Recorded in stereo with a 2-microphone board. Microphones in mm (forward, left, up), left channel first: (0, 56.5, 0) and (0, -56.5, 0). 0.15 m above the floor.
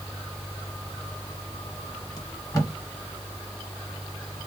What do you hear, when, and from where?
2.2 s tape being pulled: 30° left (ahead or behind), 1.4 m